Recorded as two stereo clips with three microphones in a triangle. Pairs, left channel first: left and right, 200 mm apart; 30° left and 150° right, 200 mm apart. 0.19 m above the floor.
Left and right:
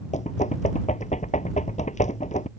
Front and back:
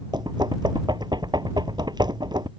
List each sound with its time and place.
0.1 s knocking: 140° left